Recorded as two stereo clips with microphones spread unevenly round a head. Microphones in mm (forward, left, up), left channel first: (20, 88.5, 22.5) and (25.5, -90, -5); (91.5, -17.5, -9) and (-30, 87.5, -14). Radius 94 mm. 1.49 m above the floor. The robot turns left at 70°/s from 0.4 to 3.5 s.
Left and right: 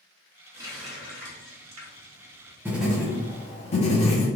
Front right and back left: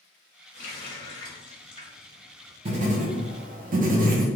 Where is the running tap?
10° right, 1.6 m; by 2.6 s 155° right, 1.6 m.